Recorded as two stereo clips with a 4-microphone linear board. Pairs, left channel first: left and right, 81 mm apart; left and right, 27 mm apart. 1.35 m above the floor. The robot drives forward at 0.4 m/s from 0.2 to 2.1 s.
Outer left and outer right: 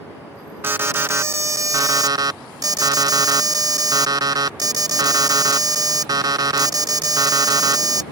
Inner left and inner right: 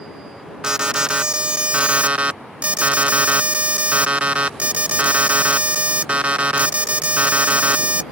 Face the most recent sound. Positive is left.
turn(degrees=-50)  # may be behind; listen again after turning